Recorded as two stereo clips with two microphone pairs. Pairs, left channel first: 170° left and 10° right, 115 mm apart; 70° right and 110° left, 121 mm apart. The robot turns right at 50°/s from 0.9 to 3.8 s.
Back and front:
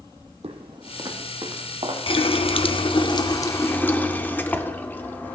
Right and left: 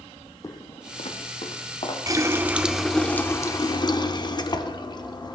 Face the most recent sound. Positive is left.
turn(degrees=-115)